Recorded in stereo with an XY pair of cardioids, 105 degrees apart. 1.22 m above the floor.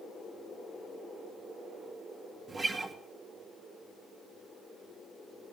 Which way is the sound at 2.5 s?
30° right.